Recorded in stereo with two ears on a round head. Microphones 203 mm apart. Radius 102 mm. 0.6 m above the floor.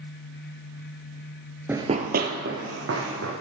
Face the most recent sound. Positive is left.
turn(degrees=-65)  # may be behind; listen again after turning